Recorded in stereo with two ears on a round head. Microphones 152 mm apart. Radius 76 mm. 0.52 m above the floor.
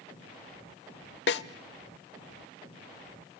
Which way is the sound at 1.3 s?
70° left (ahead or behind).